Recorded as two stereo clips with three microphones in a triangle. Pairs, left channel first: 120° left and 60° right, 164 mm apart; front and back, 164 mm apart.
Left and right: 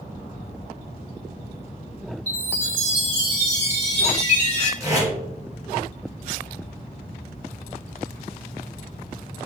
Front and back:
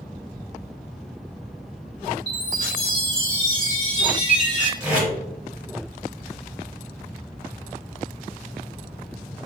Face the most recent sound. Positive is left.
turn(degrees=-105)